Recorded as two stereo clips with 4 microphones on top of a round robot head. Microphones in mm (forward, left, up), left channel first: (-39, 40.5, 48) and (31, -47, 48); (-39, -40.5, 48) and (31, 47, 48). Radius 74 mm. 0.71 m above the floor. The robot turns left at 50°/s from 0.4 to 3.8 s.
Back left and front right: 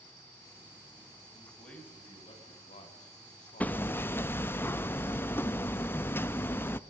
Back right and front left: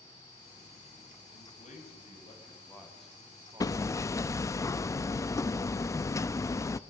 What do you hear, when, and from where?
1.3 s a man speaking: 130° right, 5.5 m; by 4.6 s 105° left, 5.5 m
3.6 s hammering: 165° right, 0.8 m; by 6.8 s 175° right, 0.8 m